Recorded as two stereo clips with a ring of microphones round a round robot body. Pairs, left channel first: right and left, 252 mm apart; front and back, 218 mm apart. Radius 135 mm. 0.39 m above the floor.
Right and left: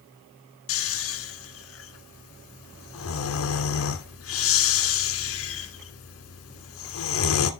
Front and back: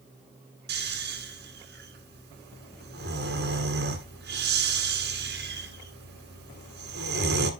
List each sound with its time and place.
0.7 s snoring: 125° right, 1.3 m